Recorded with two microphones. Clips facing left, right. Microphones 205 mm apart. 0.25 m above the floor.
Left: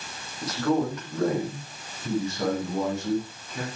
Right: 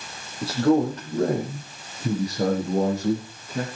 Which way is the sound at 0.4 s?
30° right (ahead or behind).